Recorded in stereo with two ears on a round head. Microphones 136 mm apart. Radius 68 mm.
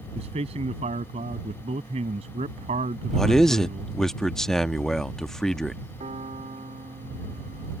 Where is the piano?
40° right (ahead or behind).